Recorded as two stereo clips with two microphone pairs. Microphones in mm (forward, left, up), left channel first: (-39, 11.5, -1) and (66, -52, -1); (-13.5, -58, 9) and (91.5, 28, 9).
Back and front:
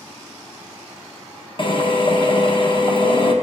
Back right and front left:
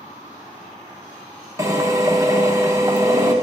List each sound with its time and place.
1.6 s a drill: 105° left, 0.9 m